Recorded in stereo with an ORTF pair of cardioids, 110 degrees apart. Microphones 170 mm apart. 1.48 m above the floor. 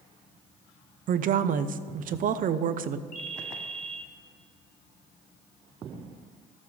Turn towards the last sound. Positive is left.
turn(degrees=65)